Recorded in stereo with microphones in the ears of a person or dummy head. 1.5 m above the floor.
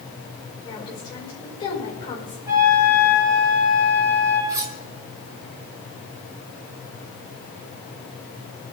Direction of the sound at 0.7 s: 20° left (ahead or behind).